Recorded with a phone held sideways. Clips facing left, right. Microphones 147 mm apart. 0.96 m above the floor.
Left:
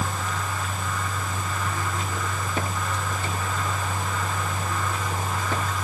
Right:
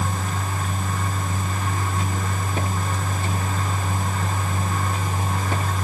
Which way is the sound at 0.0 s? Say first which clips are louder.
Right 2 dB; 45° right (ahead or behind).